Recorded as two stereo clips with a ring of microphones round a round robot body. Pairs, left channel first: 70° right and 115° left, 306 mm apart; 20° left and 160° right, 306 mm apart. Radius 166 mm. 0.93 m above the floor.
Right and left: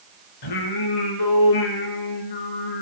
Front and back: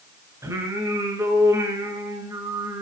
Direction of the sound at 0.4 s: 75° right.